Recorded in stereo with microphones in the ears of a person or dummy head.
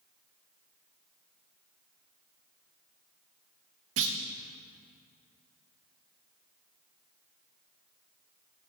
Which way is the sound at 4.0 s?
65° right (ahead or behind).